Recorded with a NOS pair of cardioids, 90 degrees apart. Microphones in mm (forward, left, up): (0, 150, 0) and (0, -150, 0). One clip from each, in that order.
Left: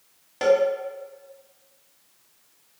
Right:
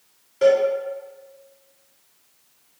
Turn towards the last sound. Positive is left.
turn(degrees=60)